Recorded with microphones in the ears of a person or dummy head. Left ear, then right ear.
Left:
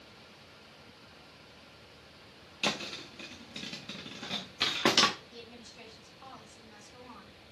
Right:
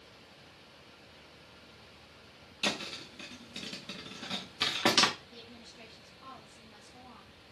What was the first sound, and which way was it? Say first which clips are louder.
A thud: left 1 dB; 5° left (ahead or behind).